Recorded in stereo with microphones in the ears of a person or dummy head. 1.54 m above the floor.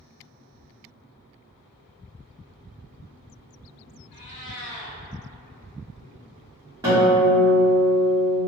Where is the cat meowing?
40° left (ahead or behind), 1.1 m.